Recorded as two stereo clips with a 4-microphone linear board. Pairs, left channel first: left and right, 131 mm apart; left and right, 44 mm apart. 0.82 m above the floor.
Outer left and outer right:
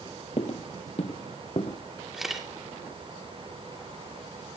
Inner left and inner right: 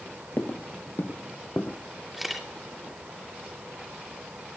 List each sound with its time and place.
0.4 s footsteps: 50° left (ahead or behind), 1.1 m
2.1 s a camera shutter: centre (ahead or behind), 2.5 m